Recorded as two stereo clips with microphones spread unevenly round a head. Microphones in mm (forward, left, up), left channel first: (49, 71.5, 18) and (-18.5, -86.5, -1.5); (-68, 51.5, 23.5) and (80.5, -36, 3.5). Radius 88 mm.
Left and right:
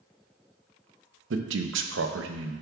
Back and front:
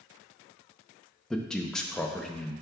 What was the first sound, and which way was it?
A man speaking, 125° right.